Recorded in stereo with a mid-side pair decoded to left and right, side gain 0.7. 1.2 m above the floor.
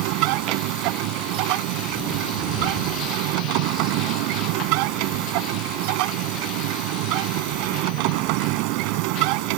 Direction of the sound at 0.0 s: 70° right.